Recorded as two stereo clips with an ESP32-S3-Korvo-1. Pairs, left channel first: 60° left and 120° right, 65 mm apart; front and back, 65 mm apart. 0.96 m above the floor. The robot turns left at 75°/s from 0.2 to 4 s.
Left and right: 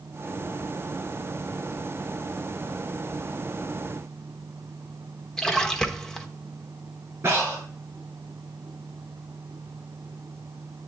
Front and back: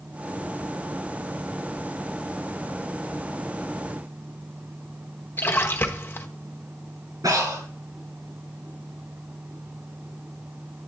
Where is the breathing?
170° right, 4.5 m.